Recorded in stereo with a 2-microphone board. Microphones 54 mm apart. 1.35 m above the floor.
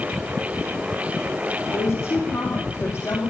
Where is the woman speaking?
80° left, 3 m; by 3.3 s 65° left (ahead or behind), 2.5 m.